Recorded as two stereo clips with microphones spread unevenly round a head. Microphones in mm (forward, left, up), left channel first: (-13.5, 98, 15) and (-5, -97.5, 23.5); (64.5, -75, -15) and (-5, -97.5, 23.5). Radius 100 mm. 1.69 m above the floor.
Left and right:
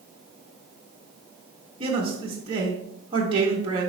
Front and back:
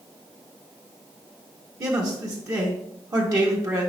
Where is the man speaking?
150° right, 1.5 m.